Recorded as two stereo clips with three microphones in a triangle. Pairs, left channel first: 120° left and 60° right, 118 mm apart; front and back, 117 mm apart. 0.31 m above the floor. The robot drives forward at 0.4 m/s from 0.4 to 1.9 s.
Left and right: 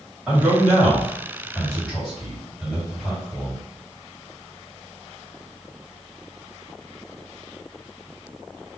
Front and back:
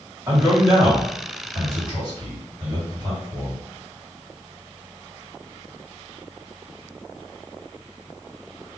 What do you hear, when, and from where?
0.3 s a man speaking: 130° right, 1.6 m; by 3.6 s 150° right, 1.9 m